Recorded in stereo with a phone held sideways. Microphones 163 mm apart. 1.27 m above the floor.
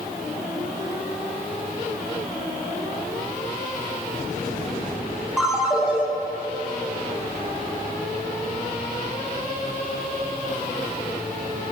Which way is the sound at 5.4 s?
5° right (ahead or behind).